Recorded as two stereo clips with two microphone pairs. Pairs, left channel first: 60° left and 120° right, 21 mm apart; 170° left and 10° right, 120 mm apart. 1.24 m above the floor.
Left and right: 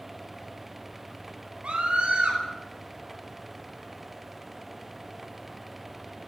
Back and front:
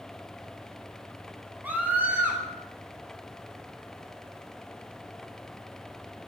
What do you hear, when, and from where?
1.6 s a scream: 85° right, 9.5 m